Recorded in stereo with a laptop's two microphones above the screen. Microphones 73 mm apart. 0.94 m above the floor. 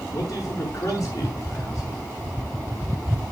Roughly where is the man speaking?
Left.